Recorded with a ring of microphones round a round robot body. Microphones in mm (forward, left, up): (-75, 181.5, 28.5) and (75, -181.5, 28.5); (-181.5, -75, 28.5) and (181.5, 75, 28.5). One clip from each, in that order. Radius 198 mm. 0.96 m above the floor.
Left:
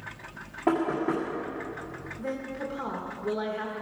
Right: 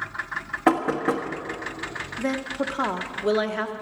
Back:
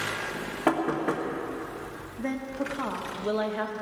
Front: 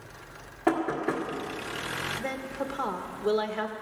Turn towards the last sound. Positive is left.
turn(degrees=-55)